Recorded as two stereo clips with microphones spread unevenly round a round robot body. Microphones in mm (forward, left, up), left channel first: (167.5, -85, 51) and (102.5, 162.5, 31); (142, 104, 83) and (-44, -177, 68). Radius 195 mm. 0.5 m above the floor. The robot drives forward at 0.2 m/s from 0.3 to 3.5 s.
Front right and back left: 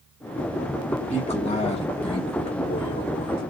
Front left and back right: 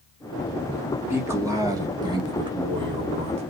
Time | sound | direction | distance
1.1 | a man speaking | 60° right | 1.4 m